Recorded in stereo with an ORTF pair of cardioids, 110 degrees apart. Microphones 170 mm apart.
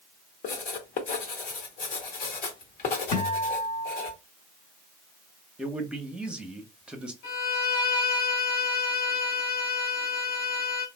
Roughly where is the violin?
Left.